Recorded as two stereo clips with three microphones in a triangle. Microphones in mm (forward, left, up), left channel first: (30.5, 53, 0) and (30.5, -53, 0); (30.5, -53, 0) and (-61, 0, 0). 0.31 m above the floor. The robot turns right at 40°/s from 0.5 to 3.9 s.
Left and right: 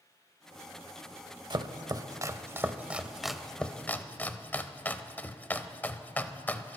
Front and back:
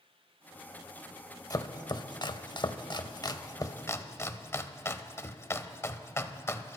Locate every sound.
1.5 s chopping: 75° right, 0.6 m; by 6.8 s 25° left, 0.6 m